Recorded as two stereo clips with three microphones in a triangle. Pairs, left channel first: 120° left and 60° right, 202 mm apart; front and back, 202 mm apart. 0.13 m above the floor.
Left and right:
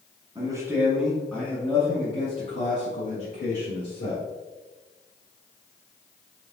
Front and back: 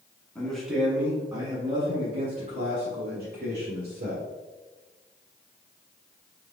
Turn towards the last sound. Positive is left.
turn(degrees=150)